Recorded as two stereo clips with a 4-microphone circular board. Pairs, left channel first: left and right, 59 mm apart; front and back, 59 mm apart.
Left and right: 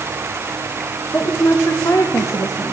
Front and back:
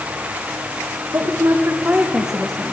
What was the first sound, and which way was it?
A woman speaking, 140° left.